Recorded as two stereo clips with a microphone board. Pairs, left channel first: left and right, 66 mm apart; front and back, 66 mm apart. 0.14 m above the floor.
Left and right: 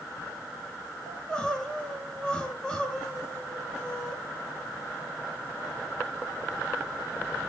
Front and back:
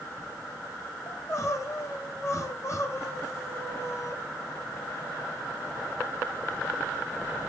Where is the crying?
20° left, 1.4 m.